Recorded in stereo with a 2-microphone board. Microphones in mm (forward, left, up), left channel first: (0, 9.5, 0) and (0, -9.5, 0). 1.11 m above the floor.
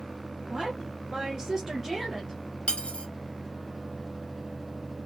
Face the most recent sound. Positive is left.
turn(degrees=60)  # may be behind; listen again after turning